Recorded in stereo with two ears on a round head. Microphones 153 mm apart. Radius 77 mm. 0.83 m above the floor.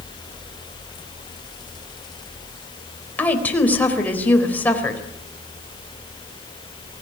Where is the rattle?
No rattle in this recording.